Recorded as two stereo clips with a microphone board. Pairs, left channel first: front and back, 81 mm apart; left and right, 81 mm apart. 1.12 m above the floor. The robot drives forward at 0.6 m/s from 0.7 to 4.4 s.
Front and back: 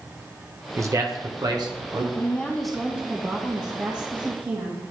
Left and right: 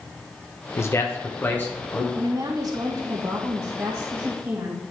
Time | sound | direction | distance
0.8 | a man speaking | 135° left | 0.9 m
2.1 | a woman speaking | 60° right | 0.9 m